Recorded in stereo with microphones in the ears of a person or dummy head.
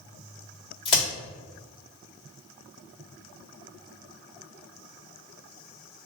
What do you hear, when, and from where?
0.8 s a crack: 30° left (ahead or behind), 1.6 m